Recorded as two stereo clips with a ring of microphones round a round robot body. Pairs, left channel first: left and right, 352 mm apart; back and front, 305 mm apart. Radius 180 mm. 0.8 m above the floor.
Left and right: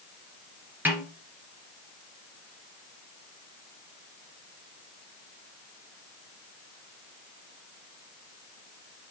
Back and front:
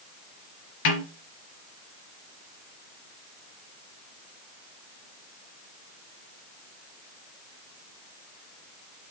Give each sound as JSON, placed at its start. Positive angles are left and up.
{"t": 0.8, "sound": "a snare drum", "azimuth_deg": -175, "distance_m": 3.0}